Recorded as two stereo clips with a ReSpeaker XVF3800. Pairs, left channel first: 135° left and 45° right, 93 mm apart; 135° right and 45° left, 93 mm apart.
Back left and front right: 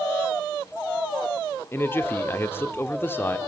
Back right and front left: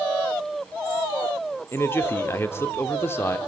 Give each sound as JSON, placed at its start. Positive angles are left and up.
{"t": 1.7, "sound": "a man speaking", "azimuth_deg": 180, "distance_m": 1.0}